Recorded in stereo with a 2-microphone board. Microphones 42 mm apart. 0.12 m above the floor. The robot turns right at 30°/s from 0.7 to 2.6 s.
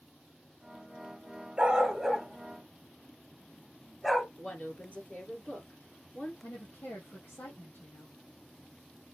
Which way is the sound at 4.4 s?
45° left (ahead or behind).